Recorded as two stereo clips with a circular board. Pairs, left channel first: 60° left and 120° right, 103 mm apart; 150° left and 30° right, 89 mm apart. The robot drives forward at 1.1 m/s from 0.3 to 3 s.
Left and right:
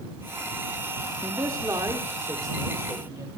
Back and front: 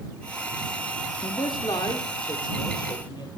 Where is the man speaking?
175° right, 2.0 m; by 3.3 s straight behind, 4 m.